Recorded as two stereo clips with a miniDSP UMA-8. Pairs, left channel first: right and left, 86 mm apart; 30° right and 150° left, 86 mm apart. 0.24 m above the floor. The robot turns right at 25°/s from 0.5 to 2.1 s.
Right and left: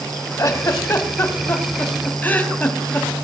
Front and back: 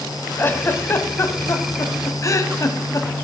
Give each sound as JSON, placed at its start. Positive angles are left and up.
{"t": 0.4, "sound": "a giggle", "azimuth_deg": -75, "distance_m": 0.9}